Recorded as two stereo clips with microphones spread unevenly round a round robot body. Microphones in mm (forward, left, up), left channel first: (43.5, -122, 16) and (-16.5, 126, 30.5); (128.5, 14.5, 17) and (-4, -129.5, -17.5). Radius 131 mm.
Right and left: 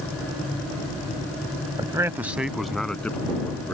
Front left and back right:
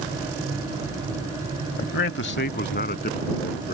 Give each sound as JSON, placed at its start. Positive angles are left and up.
{"t": 1.8, "sound": "a man speaking", "azimuth_deg": 30}